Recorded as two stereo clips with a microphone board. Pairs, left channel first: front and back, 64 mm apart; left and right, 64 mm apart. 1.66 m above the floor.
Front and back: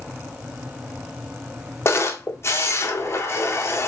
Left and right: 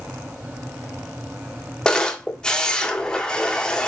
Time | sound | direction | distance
1.9 | a camera shutter | 20° left | 1.6 m